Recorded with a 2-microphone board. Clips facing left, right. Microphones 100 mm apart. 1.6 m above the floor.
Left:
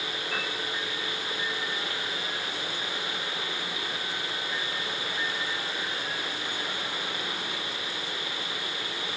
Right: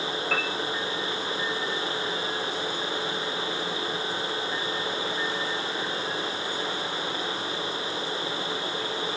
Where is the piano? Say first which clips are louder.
Right 4 dB; 75° right (ahead or behind), 3.5 m.